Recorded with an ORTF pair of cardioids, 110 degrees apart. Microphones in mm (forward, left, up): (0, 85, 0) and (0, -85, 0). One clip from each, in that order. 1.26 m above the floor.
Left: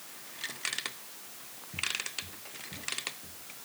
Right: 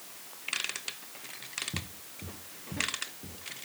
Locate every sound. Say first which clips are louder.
1.7 s footsteps: left 8 dB; 50° right; by 3.6 s 60° right